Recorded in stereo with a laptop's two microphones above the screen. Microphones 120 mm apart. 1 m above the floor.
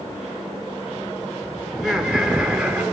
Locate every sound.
1.7 s laughter: centre (ahead or behind), 4 m; by 2.8 s 10° right (ahead or behind), 3.5 m